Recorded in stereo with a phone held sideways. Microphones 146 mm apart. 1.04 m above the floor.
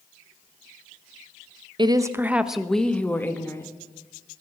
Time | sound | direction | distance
1.8 | a woman speaking | 35° right (ahead or behind) | 0.7 m